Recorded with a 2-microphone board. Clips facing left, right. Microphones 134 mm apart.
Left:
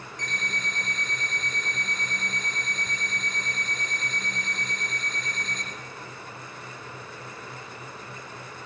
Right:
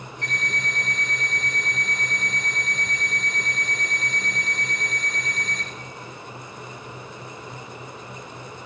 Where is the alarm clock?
5° right (ahead or behind), 6.5 m.